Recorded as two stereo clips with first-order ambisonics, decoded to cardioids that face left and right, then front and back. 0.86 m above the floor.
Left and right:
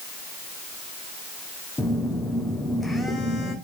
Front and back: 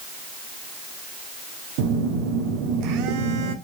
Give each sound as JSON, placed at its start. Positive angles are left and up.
{"t": 1.8, "sound": "a phone buzzing", "azimuth_deg": 170, "distance_m": 0.8}